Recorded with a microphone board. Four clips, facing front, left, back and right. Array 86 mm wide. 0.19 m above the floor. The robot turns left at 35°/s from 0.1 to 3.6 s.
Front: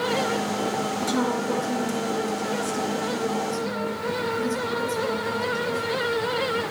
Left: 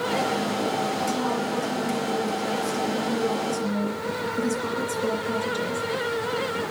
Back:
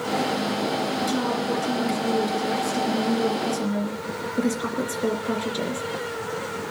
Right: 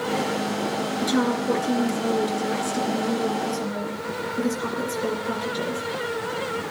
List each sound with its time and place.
1.0 s a woman speaking: 80° right, 3 m; by 5.9 s 170° right, 3 m